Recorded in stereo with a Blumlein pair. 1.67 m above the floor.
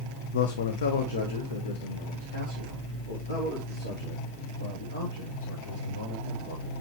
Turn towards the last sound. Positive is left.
turn(degrees=70)